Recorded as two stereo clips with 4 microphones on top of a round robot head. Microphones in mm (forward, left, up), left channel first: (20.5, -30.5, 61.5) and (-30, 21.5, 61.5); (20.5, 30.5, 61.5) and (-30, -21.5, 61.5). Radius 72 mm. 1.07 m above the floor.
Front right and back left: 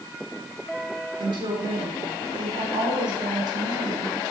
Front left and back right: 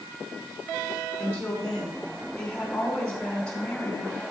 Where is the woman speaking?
125° left, 4 m.